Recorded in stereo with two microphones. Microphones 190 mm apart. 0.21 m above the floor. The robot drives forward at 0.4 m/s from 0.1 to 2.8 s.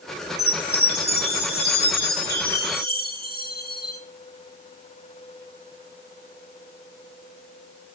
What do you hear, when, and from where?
0.4 s a chime: 55° left (ahead or behind), 3 m